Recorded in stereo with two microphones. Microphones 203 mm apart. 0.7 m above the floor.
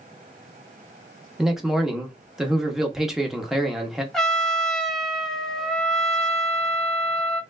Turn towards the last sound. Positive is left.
turn(degrees=5)  # may be behind; listen again after turning